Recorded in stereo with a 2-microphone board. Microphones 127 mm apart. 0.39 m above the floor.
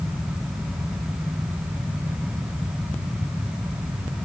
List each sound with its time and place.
Only background noise.